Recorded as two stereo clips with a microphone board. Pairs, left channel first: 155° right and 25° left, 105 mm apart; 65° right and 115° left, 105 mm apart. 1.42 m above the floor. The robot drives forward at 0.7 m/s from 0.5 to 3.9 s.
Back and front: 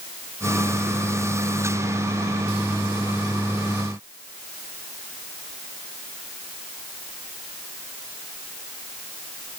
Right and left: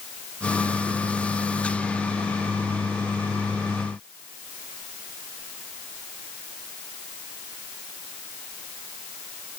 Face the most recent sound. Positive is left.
No sound to turn to.